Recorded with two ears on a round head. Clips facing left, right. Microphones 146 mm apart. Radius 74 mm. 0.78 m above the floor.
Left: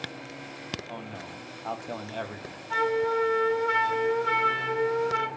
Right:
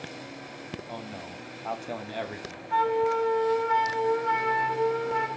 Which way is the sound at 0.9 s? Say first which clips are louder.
Right 1 dB; 5° right (ahead or behind).